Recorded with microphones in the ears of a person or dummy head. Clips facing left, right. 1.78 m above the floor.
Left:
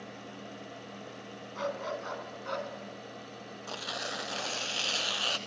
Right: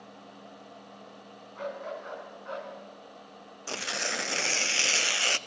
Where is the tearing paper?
35° right (ahead or behind), 0.5 m.